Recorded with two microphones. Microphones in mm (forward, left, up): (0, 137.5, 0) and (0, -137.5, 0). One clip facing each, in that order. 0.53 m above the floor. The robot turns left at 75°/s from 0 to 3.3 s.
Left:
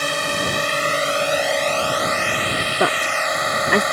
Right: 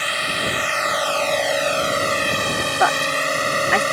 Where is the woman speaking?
40° left (ahead or behind); by 3.8 s 50° left (ahead or behind).